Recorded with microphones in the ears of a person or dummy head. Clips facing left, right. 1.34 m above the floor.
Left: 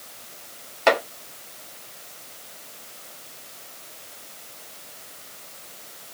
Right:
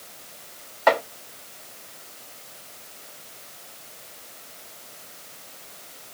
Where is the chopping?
45° left (ahead or behind), 2.5 m.